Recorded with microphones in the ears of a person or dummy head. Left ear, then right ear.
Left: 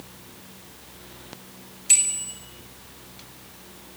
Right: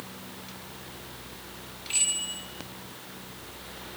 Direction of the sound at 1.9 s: 55° left (ahead or behind).